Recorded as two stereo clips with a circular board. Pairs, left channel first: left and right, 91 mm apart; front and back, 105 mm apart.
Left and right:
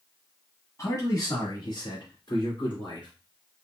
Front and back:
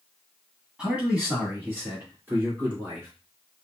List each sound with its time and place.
0.8 s a man speaking: 105° left, 1.4 m; by 3.1 s 115° left, 3 m